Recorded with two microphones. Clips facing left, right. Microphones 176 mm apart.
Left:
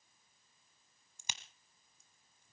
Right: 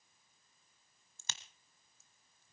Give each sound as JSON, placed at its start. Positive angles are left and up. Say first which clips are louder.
{"t": 1.2, "sound": "a crack", "louder": "left 1 dB", "side_deg": 15, "distance_m": 1.2}